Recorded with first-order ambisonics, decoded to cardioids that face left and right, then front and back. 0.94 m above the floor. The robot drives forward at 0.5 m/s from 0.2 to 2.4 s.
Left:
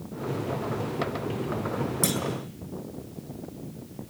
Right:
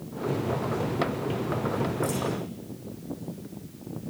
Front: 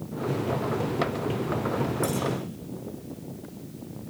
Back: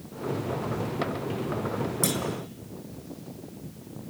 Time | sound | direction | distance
2.0 | a clunk | 125° left | 6 m